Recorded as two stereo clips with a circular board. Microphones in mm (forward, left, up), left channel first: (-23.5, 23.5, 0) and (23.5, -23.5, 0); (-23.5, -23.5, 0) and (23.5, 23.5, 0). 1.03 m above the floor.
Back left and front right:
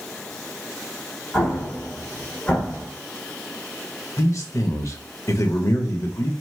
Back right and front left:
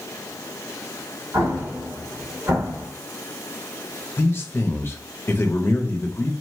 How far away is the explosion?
About 1.2 m.